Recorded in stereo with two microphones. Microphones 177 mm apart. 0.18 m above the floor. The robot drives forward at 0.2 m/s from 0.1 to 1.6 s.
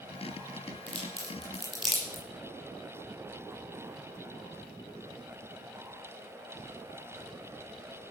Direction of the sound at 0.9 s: 40° right (ahead or behind).